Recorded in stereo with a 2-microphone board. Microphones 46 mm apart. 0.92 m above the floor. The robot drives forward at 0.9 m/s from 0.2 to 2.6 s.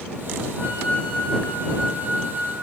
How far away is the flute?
About 1.6 m.